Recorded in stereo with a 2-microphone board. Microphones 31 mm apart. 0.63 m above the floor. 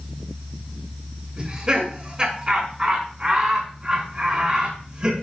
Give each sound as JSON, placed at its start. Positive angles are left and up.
{"t": 1.4, "sound": "laughter", "side_deg": -25, "distance_m": 5.5}